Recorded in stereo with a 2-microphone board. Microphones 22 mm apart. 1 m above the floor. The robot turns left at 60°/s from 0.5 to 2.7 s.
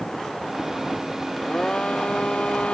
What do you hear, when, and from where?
1.4 s a blender: 150° left; by 2.8 s 70° left